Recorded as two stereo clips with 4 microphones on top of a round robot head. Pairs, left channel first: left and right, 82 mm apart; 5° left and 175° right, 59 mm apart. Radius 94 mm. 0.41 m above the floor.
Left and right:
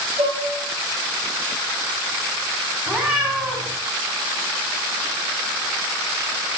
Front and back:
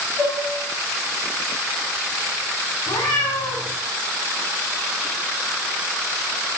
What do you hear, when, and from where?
0.2 s dishes clattering: 65° right, 3.5 m
2.9 s a cat meowing: 15° right, 3.5 m